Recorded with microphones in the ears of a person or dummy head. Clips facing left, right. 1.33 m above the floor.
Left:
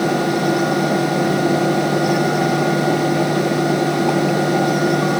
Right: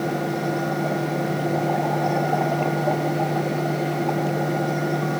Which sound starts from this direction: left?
A fan, at 0.0 s.